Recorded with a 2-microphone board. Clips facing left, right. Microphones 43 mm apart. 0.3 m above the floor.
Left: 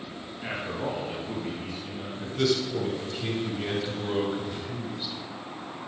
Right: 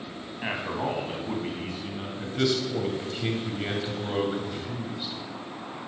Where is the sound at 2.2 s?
20° right (ahead or behind), 1.9 m.